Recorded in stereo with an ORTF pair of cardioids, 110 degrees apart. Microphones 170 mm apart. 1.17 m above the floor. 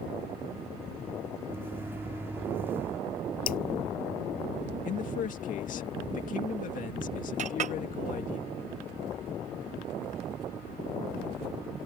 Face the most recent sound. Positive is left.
turn(degrees=-50)